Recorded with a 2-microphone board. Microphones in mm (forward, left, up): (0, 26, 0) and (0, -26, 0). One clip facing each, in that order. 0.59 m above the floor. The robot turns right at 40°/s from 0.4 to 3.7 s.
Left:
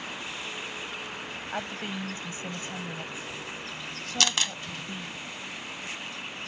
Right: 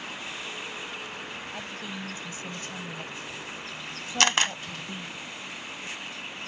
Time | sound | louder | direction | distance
1.5 | a woman speaking | left 3 dB | 110° left | ?
4.2 | a camera shutter | right 5 dB | 40° right (ahead or behind) | ?